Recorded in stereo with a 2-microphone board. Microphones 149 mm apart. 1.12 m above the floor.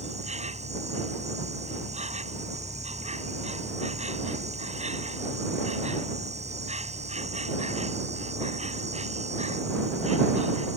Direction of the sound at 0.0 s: 50° right (ahead or behind).